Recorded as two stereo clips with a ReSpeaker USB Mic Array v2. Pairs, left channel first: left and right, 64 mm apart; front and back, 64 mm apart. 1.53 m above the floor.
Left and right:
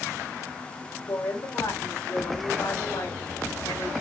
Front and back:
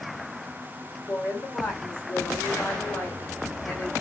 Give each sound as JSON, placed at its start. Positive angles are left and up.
{"t": 1.1, "sound": "a woman speaking", "azimuth_deg": 75, "distance_m": 5.0}